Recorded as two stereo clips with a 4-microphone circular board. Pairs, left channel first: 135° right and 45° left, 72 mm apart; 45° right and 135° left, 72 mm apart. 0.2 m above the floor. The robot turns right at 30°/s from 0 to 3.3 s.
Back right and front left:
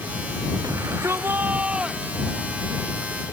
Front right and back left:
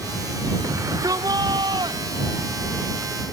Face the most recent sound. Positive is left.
turn(degrees=165)